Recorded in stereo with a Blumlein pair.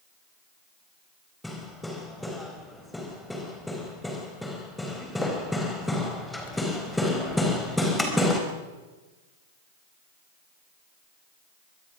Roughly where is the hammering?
Ahead.